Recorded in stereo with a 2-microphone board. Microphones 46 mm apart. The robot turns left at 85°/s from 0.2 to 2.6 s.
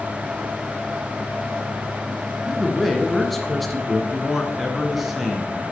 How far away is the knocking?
I don't hear knocking.